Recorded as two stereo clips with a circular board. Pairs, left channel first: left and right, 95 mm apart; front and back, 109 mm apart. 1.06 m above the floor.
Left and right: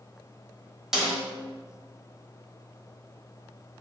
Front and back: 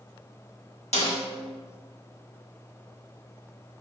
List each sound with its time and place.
0.9 s a snare drum: 5° right, 1.2 m